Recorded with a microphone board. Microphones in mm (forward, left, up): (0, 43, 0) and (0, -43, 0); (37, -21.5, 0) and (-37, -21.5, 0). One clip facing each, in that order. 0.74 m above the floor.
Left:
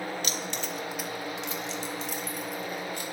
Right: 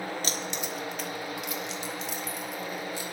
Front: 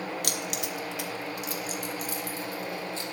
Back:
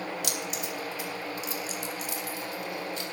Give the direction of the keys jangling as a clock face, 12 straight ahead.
1 o'clock.